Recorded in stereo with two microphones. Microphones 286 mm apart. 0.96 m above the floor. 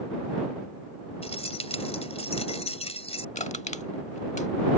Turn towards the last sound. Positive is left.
turn(degrees=25)  # may be behind; listen again after turning